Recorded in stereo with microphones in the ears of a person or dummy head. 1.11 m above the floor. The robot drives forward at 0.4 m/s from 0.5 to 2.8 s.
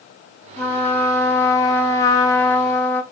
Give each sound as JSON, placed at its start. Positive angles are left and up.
{"t": 0.6, "sound": "a trumpet", "side_deg": 10, "distance_m": 0.9}